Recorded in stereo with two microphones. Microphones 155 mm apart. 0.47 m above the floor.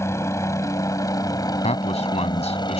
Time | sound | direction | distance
0.0 | a helicopter | 20° left (ahead or behind) | ?
1.6 | a man speaking | 45° left (ahead or behind) | ?